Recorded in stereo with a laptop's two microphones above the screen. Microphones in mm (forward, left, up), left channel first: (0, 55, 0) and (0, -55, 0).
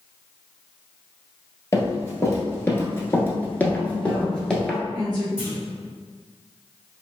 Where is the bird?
No bird in this recording.